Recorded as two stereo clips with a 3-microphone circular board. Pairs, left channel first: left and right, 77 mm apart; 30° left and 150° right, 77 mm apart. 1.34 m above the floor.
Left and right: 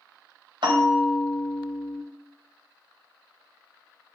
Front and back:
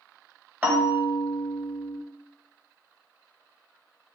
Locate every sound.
0.6 s a bell: 80° right, 1.4 m